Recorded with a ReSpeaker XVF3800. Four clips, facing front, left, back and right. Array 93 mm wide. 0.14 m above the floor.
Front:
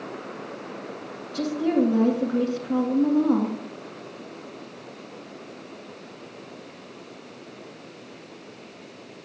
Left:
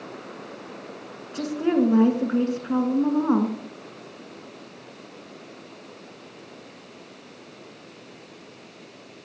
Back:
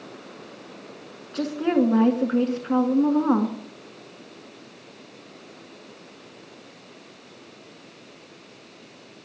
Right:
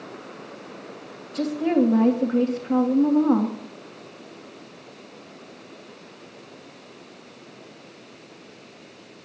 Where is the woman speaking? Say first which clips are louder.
Right 1 dB, back 1 dB; 155° left, 1.8 m.